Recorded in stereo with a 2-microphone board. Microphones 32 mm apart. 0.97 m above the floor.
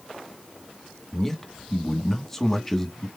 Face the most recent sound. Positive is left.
turn(degrees=10)  # may be behind; listen again after turning